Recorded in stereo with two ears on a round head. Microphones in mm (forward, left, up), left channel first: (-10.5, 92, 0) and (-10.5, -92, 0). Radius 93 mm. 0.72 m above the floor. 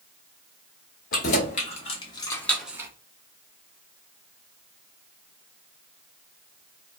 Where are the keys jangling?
40° left (ahead or behind), 1.1 m; by 2.9 s 15° right (ahead or behind), 0.5 m.